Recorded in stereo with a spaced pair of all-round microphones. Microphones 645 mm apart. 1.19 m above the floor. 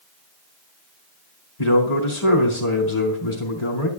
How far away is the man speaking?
About 2.5 m.